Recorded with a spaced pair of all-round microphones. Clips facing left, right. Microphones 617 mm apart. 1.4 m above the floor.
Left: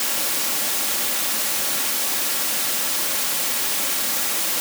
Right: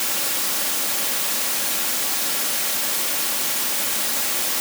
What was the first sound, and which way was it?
Only background noise.